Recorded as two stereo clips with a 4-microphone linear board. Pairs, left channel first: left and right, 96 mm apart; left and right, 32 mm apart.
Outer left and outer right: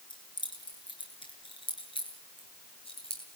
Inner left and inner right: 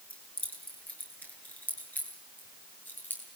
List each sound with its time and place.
0.1 s keys jangling: 50° left (ahead or behind), 7 m; by 3.2 s 75° left (ahead or behind), 9 m